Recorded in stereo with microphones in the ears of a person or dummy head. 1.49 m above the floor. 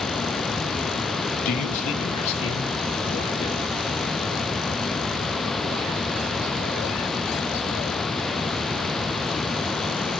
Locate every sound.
1.4 s a man speaking: 45° left (ahead or behind), 1.4 m; by 3.7 s 30° left (ahead or behind), 4 m